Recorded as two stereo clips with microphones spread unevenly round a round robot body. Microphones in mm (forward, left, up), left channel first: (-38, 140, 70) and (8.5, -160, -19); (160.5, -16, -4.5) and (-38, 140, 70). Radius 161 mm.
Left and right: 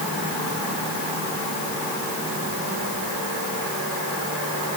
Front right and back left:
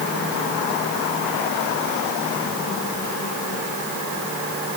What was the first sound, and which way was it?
Only background noise.